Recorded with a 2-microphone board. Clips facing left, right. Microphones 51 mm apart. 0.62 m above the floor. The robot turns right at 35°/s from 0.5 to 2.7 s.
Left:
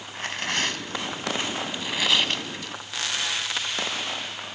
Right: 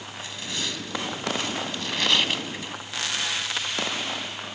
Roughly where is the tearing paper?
Left.